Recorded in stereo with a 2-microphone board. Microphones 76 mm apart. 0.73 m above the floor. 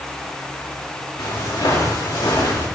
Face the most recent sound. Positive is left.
turn(degrees=70)  # may be behind; listen again after turning